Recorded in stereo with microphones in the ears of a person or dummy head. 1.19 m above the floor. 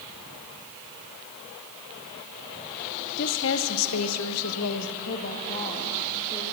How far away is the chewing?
I don't hear chewing.